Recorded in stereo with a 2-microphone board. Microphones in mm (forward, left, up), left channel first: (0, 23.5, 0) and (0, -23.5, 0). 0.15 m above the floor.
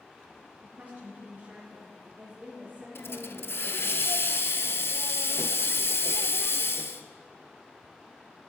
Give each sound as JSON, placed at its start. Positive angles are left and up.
{"t": 0.6, "sound": "a woman speaking", "side_deg": -30, "distance_m": 2.5}
{"t": 3.0, "sound": "a hiss", "side_deg": 55, "distance_m": 0.6}